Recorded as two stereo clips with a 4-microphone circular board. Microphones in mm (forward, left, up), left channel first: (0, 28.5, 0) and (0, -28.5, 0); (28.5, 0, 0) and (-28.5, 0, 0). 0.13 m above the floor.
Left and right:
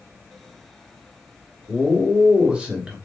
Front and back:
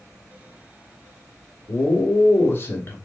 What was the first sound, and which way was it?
A man speaking, 20° right.